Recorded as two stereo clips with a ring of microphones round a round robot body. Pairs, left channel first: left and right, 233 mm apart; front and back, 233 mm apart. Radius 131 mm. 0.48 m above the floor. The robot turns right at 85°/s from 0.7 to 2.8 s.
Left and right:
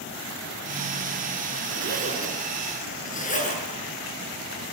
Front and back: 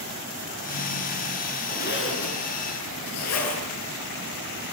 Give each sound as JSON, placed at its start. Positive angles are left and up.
{"t": 1.7, "sound": "a zipper", "azimuth_deg": -60, "distance_m": 6.0}